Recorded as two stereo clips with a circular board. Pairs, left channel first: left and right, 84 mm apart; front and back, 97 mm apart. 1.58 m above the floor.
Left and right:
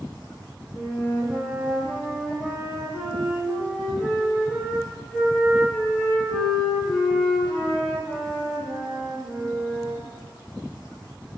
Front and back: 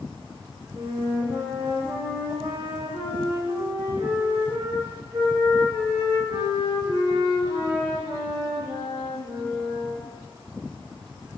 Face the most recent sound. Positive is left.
turn(degrees=180)